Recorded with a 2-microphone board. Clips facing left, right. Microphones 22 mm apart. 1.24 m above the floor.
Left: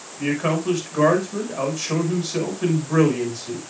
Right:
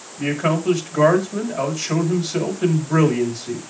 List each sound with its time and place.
0.2 s a man speaking: centre (ahead or behind), 6 m